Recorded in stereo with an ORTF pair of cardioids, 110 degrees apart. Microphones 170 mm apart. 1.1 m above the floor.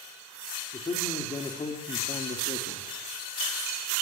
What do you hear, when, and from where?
0.7 s a man speaking: 30° left, 3.5 m; by 2.9 s 40° left, 2.5 m